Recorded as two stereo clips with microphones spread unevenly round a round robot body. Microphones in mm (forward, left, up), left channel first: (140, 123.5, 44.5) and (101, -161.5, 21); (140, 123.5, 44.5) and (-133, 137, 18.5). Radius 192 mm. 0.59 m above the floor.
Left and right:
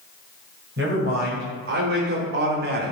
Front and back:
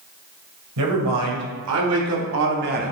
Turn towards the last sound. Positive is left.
turn(degrees=-135)